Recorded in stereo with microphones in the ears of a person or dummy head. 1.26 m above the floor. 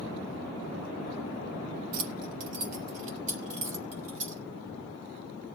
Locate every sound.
1.9 s keys jangling: 60° right (ahead or behind), 1.2 m; by 4.4 s 50° right (ahead or behind), 3.5 m